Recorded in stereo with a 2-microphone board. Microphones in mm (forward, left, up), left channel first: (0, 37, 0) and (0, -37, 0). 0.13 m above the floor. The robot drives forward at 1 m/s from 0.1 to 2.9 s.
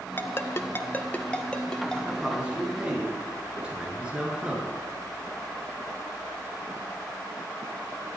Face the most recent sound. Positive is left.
turn(degrees=-15)  # may be behind; listen again after turning